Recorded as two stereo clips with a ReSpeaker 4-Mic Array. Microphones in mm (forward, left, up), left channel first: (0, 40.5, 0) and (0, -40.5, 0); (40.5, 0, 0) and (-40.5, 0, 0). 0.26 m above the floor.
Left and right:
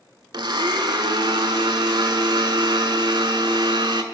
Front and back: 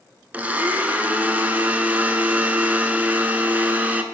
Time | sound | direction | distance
0.3 | a blender | 110° right | 0.6 m